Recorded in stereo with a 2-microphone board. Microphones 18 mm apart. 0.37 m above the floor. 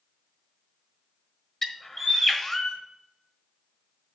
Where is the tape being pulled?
I don't hear tape being pulled.